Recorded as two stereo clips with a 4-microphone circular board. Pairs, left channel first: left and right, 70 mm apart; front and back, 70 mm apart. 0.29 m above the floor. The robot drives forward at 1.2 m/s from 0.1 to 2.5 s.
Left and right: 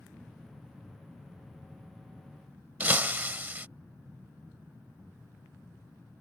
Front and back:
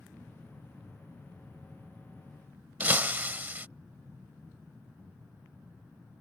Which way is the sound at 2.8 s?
135° right.